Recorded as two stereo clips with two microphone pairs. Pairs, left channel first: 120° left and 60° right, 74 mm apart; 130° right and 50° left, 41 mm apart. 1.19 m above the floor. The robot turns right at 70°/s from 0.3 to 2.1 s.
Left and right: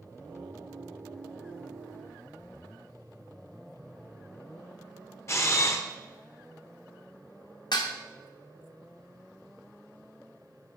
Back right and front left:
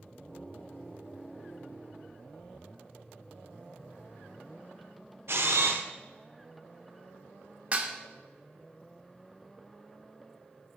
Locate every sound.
5.3 s a camera shutter: 65° left, 0.6 m
7.7 s dishes clattering: 110° left, 0.7 m